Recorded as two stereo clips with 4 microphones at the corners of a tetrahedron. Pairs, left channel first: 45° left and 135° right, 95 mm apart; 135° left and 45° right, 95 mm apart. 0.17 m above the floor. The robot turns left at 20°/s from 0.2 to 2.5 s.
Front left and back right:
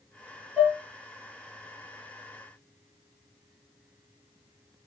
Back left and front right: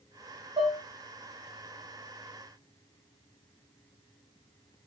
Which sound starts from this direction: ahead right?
Dishes clattering, at 0.6 s.